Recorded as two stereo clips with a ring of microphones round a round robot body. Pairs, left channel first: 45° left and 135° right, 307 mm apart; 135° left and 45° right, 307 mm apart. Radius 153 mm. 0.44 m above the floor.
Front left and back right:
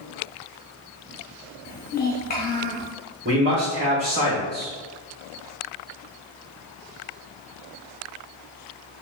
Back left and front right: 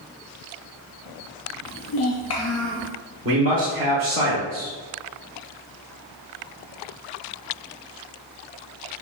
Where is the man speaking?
85° right, 1.1 m.